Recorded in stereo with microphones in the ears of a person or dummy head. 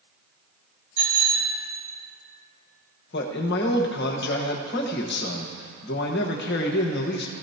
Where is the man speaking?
55° left (ahead or behind), 1.3 m.